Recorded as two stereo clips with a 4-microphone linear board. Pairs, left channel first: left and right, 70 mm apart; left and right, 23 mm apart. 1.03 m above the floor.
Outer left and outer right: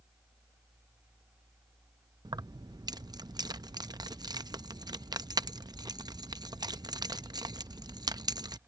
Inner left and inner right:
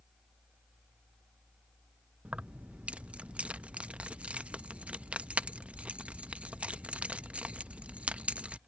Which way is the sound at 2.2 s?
70° right (ahead or behind).